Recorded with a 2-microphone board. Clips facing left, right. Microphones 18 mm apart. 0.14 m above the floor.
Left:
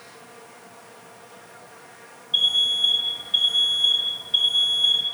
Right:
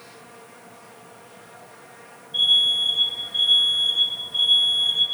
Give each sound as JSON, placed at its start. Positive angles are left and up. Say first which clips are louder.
{"t": 2.3, "sound": "an alarm", "louder": "right 2 dB", "side_deg": 70, "distance_m": 4.5}